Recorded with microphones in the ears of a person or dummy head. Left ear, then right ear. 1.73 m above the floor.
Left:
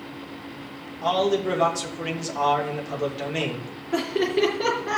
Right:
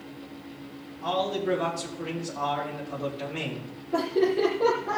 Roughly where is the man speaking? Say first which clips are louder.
Left 5 dB; left.